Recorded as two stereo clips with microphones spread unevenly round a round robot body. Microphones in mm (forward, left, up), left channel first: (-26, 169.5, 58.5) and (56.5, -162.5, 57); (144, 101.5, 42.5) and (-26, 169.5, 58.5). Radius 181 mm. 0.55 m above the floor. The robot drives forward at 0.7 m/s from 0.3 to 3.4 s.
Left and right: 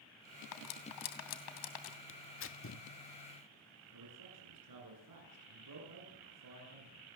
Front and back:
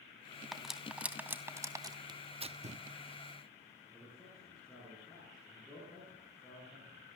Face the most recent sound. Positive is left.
turn(degrees=-110)